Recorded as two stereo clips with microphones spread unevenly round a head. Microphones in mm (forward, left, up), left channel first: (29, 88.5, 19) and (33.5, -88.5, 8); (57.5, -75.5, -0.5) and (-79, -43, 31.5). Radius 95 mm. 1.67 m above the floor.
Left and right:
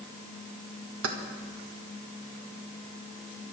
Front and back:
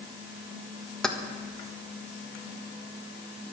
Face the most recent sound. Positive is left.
turn(degrees=-105)